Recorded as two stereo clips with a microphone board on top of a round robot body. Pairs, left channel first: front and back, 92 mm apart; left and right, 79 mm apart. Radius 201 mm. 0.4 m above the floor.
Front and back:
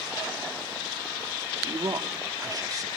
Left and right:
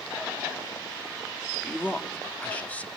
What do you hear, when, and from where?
1.6 s a man speaking: 155° left, 1.2 m